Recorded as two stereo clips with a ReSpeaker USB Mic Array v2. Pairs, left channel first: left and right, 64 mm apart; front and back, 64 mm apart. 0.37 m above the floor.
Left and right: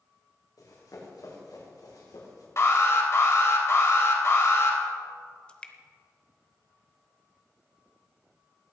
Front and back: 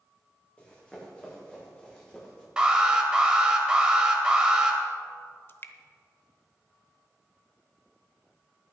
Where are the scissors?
I don't hear scissors.